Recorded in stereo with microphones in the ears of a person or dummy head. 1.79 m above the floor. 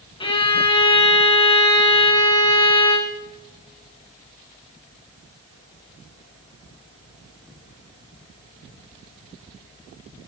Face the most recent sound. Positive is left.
turn(degrees=25)  # may be behind; listen again after turning